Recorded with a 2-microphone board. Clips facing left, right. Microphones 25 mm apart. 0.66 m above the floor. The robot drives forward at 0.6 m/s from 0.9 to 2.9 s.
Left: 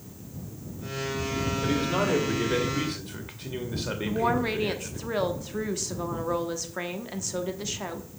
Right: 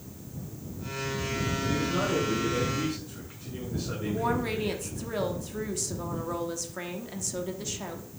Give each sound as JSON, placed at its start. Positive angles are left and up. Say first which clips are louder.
{"t": 1.6, "sound": "a man speaking", "louder": "left 3 dB", "side_deg": 60, "distance_m": 2.5}
{"t": 4.0, "sound": "a woman speaking", "louder": "left 3 dB", "side_deg": 20, "distance_m": 1.1}